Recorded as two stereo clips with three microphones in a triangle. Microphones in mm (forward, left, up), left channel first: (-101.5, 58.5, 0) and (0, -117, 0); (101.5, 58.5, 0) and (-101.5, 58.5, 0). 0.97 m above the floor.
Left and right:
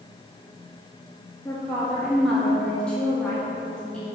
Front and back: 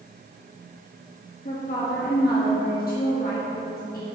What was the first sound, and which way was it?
A woman speaking, 35° left.